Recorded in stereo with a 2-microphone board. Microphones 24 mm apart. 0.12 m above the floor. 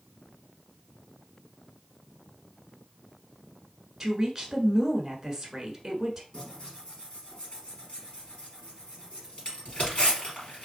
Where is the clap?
I don't hear a clap.